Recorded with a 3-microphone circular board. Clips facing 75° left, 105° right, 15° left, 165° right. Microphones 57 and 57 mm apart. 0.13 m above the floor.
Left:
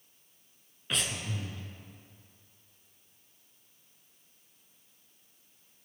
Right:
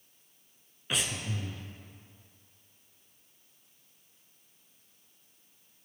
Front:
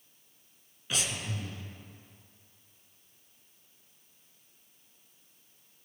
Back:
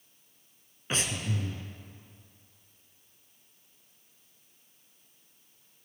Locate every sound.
0.9 s breathing: 175° left, 0.8 m